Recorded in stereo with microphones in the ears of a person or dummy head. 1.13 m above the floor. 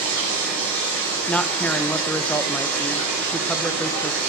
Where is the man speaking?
5° left (ahead or behind), 0.7 m.